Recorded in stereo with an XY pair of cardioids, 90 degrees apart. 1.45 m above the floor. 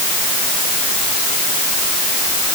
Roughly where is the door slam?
I don't hear a door slam.